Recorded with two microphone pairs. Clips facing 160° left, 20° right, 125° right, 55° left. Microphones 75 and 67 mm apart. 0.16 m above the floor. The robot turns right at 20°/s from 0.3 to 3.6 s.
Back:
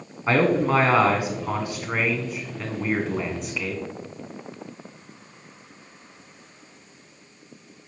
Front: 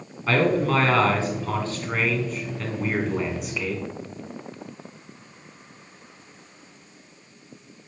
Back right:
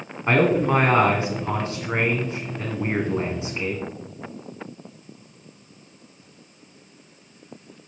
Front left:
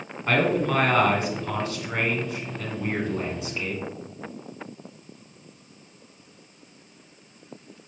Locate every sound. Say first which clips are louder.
0.3 s a man speaking: back 1 dB, back right 4 dB; 170° right, 1.4 m; by 3.8 s 105° right, 1.4 m